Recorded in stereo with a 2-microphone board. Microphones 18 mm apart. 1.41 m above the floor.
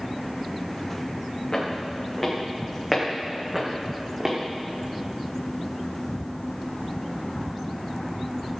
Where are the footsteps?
40° left (ahead or behind), 4.5 m; by 4.4 s 15° right (ahead or behind), 3.5 m.